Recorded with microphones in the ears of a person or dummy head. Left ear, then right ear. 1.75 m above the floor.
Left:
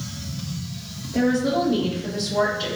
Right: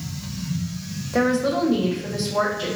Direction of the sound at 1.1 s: 60° right (ahead or behind).